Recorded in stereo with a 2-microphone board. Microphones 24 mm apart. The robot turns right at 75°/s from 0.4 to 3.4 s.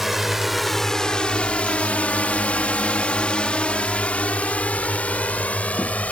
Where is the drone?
10° right (ahead or behind); by 6.1 s 80° left.